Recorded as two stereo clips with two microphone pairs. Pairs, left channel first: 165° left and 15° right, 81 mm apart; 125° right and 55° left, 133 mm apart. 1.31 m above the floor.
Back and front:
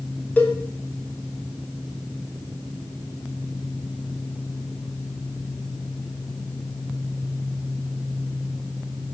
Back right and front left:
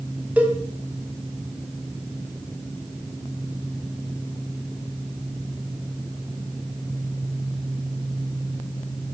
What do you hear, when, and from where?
0.4 s a cowbell: 125° left, 0.9 m